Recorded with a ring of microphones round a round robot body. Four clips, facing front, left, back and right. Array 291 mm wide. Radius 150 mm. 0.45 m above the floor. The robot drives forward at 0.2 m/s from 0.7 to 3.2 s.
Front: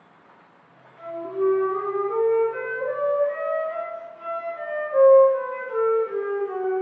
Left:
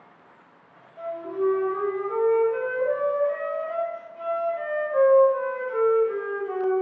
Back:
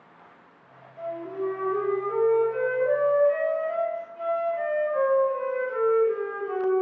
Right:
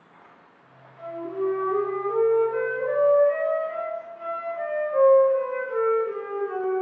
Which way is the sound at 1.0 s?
100° left.